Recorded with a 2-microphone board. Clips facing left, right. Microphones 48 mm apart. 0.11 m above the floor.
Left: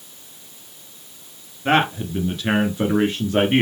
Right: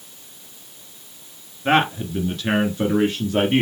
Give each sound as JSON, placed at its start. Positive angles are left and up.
{"t": 1.6, "sound": "a man speaking", "side_deg": 0, "distance_m": 1.6}